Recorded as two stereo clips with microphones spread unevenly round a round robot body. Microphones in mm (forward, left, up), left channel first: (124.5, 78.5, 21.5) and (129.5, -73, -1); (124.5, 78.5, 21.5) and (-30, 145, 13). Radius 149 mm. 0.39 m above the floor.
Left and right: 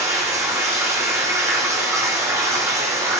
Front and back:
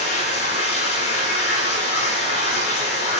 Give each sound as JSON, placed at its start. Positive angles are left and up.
{"t": 0.0, "sound": "running water", "azimuth_deg": -15, "distance_m": 9.5}